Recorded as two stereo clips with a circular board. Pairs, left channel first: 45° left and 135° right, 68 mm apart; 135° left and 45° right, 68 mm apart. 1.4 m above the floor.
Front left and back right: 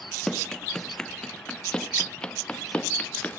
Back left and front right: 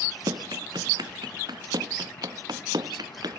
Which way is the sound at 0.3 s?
40° right.